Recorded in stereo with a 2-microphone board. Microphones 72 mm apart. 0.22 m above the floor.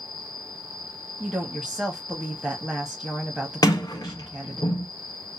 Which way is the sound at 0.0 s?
55° left (ahead or behind).